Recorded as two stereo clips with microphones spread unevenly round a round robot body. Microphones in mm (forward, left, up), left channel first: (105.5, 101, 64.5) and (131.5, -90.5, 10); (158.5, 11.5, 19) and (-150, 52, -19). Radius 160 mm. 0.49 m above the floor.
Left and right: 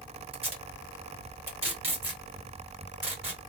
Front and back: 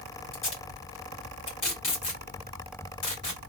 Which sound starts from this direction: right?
Tape being pulled, at 0.3 s.